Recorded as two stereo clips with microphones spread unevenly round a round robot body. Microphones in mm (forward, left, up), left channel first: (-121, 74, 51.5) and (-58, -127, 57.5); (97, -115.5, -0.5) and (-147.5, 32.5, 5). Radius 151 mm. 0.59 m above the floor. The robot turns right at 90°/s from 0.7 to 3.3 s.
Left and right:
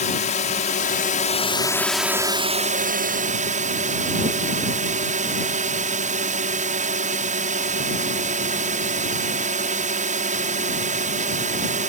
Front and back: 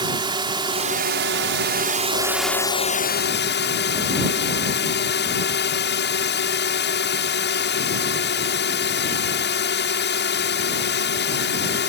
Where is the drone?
85° left; by 11.9 s 45° right.